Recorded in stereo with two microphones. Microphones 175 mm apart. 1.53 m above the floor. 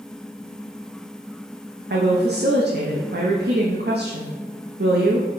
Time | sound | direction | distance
1.9 | a woman speaking | 70° right (ahead or behind) | 0.5 m